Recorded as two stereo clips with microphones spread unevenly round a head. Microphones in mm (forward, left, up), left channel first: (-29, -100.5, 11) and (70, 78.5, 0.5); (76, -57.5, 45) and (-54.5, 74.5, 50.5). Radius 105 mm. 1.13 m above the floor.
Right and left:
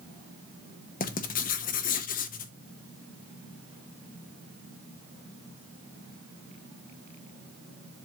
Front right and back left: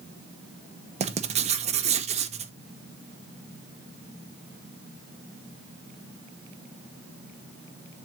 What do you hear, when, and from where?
1.0 s writing: 170° right, 0.8 m